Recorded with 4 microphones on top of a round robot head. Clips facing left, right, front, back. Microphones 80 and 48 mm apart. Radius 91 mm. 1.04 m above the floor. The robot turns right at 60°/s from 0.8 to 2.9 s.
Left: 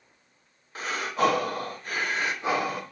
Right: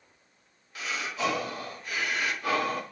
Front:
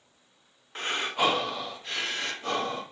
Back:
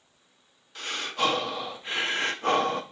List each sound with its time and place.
0.8 s breathing: 50° left, 0.8 m; by 2.8 s 170° left, 0.8 m